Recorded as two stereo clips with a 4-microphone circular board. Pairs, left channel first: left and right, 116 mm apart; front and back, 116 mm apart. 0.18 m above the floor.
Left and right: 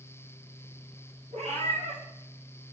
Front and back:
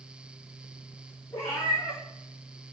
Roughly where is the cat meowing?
Right.